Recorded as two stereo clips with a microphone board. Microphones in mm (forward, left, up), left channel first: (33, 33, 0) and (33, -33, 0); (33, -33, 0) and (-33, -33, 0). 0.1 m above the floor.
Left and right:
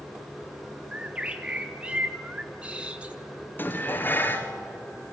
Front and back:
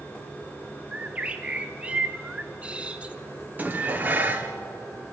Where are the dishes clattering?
130° left, 1.3 m.